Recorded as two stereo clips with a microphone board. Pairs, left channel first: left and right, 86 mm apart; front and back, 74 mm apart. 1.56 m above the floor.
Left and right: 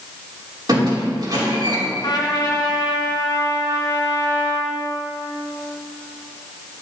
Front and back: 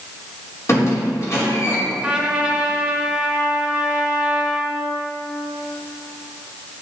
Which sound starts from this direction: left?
A trumpet, at 2.0 s.